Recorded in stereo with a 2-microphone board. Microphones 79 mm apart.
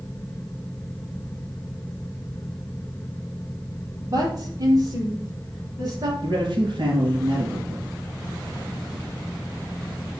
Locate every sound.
4.1 s a woman speaking: 45° right (ahead or behind), 4 m
6.2 s a man speaking: 60° right (ahead or behind), 4 m